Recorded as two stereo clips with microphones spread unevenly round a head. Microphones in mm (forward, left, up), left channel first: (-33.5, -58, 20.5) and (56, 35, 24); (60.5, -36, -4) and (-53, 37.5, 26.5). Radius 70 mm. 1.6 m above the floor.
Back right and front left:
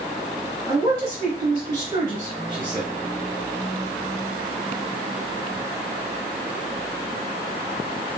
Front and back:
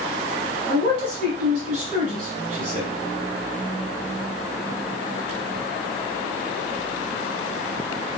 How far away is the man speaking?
About 1.8 m.